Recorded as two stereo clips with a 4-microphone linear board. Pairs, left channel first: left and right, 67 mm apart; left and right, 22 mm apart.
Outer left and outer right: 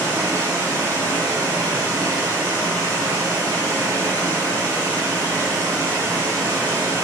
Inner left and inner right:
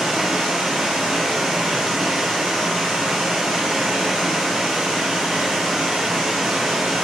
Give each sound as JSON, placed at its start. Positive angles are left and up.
{"t": 0.0, "sound": "running water", "side_deg": -85, "distance_m": 1.9}